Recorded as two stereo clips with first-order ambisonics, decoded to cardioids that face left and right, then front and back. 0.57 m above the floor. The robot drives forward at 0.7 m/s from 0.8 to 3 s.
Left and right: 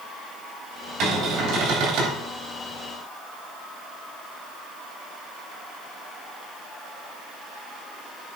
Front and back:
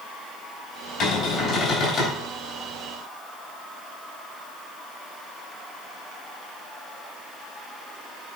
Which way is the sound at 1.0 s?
50° right.